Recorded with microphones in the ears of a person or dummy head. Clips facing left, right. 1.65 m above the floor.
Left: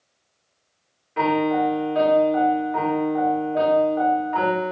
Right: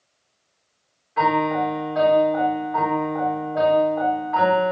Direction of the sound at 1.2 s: 40° left (ahead or behind).